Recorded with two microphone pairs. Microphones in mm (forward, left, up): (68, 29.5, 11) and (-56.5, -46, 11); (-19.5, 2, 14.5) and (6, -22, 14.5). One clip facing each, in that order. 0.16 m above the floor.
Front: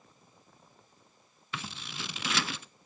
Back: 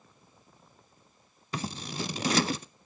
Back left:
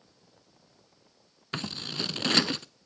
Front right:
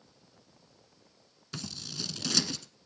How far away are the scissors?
About 0.5 m.